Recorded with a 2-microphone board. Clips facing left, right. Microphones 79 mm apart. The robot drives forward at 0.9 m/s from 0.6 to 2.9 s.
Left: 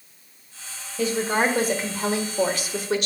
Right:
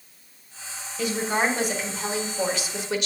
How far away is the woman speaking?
About 2 m.